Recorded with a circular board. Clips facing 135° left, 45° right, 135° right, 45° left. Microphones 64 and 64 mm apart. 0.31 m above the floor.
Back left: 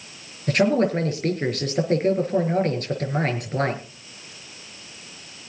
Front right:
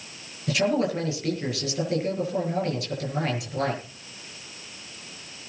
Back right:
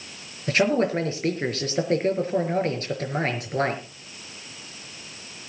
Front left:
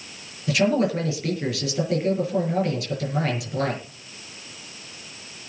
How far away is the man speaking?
About 5.5 m.